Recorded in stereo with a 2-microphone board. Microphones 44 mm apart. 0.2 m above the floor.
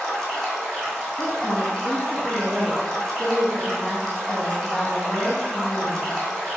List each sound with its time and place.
0.0 s running water: 15° left (ahead or behind), 1.6 m
1.2 s a woman speaking: 25° left (ahead or behind), 1.4 m